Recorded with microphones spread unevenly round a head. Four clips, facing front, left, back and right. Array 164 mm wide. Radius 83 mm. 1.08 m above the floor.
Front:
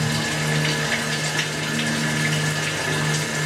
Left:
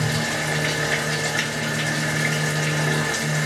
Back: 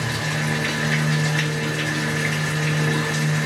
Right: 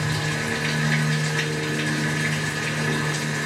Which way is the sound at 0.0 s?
100° left.